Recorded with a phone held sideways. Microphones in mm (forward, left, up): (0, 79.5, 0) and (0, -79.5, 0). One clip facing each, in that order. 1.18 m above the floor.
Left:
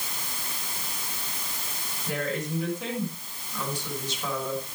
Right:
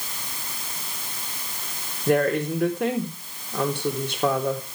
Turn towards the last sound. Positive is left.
turn(degrees=-60)  # may be behind; listen again after turning